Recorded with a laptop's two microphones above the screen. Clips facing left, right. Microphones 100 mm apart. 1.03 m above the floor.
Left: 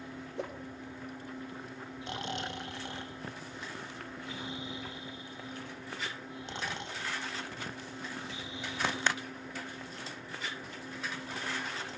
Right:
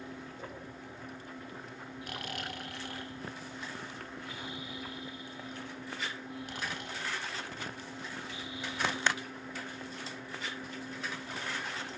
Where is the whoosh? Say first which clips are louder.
Left 6 dB; 80° left, 1.7 m.